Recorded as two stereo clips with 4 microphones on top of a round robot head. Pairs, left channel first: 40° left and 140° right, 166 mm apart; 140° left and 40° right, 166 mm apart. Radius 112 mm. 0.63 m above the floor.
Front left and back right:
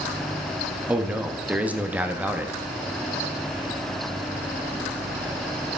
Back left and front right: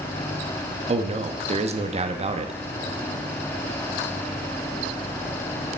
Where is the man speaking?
60° right, 0.7 m.